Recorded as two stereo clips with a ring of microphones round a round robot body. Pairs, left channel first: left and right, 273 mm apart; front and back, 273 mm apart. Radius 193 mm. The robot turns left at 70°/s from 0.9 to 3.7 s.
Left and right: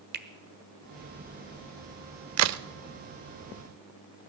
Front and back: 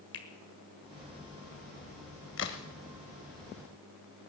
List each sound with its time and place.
0.1 s a finger snap: 45° right, 1.3 m
2.4 s a crack: 55° right, 0.6 m; by 2.6 s 75° right, 0.6 m